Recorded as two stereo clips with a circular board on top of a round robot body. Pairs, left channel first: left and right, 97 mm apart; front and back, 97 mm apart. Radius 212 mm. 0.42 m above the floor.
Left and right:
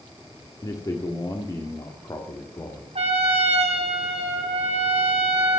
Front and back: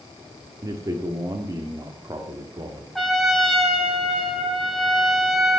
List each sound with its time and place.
0.6 s a man speaking: 135° left, 1.7 m
3.0 s a trumpet: 90° right, 2.5 m